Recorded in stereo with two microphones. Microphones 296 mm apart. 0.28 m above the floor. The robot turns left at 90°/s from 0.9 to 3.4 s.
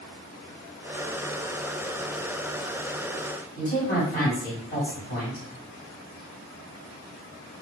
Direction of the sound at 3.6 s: 35° left (ahead or behind).